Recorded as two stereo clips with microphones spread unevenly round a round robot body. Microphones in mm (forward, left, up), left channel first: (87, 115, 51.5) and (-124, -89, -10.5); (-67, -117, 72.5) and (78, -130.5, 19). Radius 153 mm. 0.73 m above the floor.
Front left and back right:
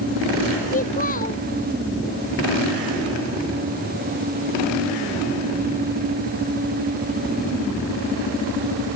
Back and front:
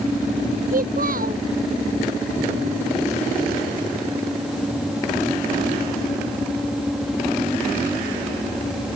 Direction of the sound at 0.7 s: 20° right.